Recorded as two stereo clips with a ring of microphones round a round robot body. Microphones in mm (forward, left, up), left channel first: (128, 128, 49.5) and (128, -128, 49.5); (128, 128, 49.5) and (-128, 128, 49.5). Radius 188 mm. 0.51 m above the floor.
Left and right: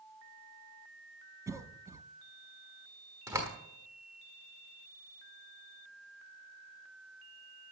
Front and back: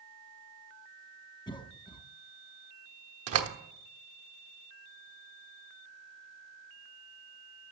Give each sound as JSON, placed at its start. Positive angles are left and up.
{"t": 1.5, "sound": "a cough", "azimuth_deg": -30, "distance_m": 0.6}
{"t": 3.3, "sound": "a door slam", "azimuth_deg": -170, "distance_m": 1.2}